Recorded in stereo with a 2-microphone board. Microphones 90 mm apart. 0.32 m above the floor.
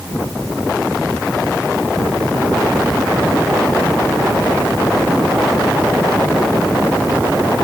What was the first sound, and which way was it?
Only background noise.